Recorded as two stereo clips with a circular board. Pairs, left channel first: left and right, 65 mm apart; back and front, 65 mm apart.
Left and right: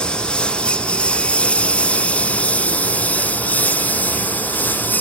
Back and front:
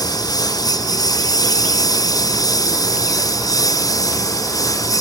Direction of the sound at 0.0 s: 165° left.